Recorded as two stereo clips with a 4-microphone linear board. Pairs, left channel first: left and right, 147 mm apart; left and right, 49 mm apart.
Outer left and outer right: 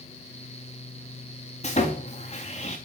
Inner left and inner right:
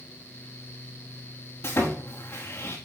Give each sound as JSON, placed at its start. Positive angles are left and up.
{"t": 1.6, "sound": "sawing", "side_deg": 50, "distance_m": 4.5}